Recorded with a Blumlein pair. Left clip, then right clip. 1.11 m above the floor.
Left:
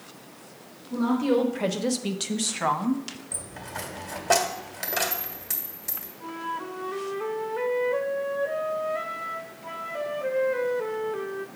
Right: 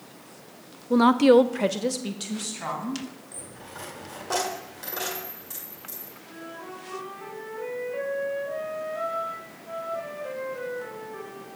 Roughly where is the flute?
Ahead left.